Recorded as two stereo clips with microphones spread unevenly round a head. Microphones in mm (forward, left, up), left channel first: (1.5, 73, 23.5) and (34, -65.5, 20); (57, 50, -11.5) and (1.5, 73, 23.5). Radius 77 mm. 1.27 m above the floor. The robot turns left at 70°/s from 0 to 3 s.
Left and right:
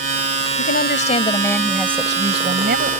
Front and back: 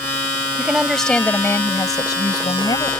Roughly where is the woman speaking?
Left.